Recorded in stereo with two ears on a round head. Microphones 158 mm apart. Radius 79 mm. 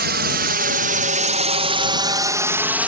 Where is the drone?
60° right (ahead or behind); by 2.9 s 5° right (ahead or behind).